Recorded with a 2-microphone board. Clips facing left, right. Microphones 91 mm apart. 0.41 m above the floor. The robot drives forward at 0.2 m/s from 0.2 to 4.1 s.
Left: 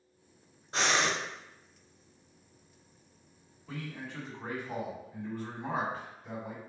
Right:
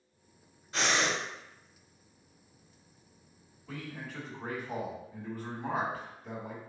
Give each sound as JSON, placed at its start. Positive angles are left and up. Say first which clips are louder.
{"t": 0.7, "sound": "breathing", "louder": "left 1 dB", "side_deg": 30, "distance_m": 1.6}
{"t": 3.7, "sound": "a man speaking", "louder": "left 1 dB", "side_deg": -5, "distance_m": 1.8}